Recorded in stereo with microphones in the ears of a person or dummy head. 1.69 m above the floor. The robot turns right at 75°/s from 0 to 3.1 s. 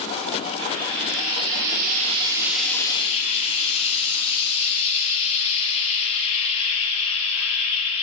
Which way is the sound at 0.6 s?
145° right.